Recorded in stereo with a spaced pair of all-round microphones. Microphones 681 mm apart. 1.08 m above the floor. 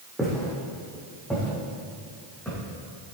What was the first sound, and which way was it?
Footsteps, centre (ahead or behind).